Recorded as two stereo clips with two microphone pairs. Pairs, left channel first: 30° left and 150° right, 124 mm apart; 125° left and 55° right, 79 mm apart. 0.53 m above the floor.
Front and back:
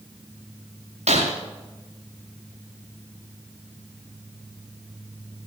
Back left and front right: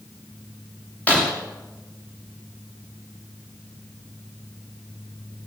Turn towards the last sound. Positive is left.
turn(degrees=-165)